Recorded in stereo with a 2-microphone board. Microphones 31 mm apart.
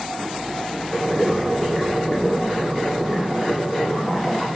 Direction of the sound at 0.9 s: 5° right (ahead or behind).